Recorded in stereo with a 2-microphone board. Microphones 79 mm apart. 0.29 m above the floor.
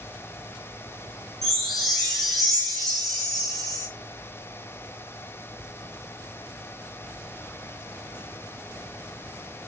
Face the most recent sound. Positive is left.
turn(degrees=5)  # may be behind; listen again after turning